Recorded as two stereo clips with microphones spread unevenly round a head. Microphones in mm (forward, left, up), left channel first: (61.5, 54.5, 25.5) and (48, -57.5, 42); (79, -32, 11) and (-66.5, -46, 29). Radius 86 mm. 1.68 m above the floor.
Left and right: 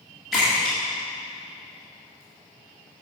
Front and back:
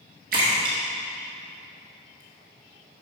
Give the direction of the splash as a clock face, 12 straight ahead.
6 o'clock.